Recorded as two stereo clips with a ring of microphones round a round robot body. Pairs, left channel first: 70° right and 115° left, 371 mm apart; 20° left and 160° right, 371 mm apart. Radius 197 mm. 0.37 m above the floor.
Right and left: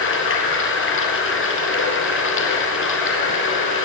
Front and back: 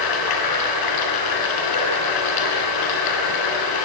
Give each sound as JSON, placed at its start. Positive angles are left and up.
{"t": 0.0, "sound": "running water", "azimuth_deg": -10, "distance_m": 3.5}